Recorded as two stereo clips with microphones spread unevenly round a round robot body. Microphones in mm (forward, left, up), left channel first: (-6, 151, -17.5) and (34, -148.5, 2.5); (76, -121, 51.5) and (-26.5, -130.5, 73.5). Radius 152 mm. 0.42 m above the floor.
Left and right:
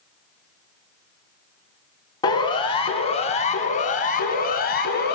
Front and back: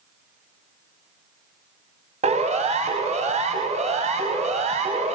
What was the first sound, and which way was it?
A siren, 175° left.